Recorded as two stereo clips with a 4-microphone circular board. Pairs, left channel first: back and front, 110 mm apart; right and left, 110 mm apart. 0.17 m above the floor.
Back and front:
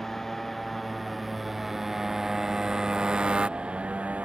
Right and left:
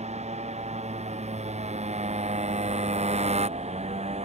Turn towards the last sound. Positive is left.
turn(degrees=80)